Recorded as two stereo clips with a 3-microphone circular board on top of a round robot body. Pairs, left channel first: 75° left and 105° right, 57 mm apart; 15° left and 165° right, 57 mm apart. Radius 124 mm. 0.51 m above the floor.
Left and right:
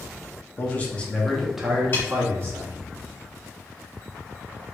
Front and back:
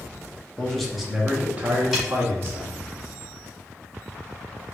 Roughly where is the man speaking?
Left.